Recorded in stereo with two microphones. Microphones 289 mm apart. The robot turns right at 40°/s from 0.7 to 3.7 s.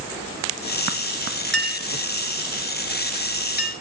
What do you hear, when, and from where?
1.5 s a clink: 40° right (ahead or behind), 2.5 m; by 3.7 s 40° left (ahead or behind), 2.5 m